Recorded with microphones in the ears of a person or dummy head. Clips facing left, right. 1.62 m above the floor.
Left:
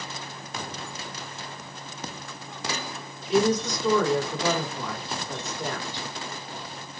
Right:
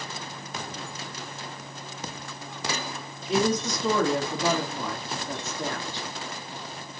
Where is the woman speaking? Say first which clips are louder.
Left 2 dB; 65° right (ahead or behind), 1.6 m.